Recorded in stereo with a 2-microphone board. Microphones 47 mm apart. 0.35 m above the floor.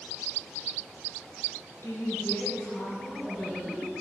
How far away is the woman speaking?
About 3 m.